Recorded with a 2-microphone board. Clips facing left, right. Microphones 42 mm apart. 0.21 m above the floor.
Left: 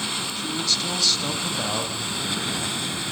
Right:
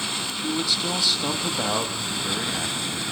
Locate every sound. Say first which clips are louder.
0.4 s a man speaking: right 2 dB; 15° right (ahead or behind), 1.0 m